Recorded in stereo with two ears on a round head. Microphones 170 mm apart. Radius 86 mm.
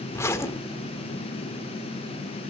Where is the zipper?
15° left (ahead or behind), 1.3 m.